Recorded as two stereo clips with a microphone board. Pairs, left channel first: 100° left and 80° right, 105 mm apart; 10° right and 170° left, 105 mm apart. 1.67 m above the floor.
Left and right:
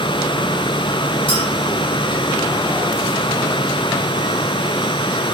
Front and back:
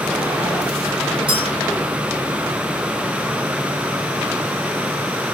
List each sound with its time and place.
1.3 s a clink: 135° left, 4.5 m